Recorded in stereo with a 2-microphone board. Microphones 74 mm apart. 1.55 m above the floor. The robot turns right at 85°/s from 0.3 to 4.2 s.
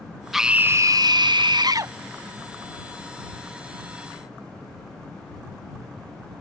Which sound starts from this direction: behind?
A scream, at 0.3 s.